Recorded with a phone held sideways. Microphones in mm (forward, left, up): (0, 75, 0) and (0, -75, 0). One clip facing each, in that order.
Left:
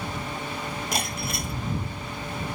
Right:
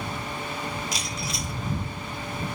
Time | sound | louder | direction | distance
0.9 | breaking glass | left 3 dB | 50° left (ahead or behind) | ?